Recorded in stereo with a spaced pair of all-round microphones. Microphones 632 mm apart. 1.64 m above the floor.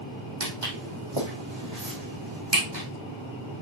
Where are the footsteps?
50° right (ahead or behind), 3 m; by 2.8 s 35° right (ahead or behind), 3.5 m.